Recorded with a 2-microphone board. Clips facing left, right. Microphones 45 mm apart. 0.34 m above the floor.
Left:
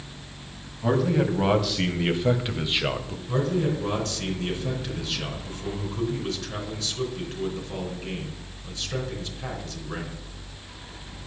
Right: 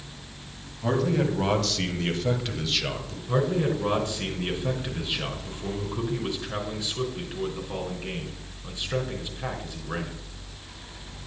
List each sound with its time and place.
0.8 s a man speaking: 5° left (ahead or behind), 2.5 m; by 3.2 s 25° left (ahead or behind), 1.8 m
3.3 s a man speaking: 20° right (ahead or behind), 4 m